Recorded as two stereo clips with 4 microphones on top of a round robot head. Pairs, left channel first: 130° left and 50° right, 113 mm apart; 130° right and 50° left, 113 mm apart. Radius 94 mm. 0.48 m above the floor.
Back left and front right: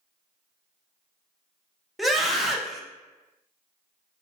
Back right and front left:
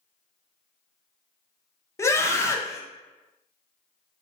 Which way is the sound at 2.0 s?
135° right.